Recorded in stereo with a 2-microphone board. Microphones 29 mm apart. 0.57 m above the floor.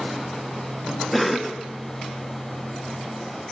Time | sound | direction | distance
1.1 | a cough | centre (ahead or behind) | 0.8 m